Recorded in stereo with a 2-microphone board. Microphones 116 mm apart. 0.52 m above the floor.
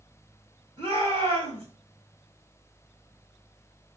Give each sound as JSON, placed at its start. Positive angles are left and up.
{"t": 0.8, "sound": "a shout", "side_deg": -50, "distance_m": 2.5}